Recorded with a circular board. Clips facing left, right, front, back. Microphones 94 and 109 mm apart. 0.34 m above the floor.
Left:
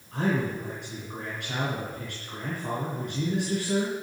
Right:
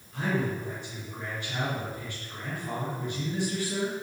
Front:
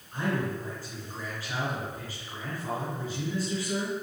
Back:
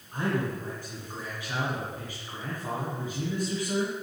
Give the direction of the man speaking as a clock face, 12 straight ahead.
8 o'clock.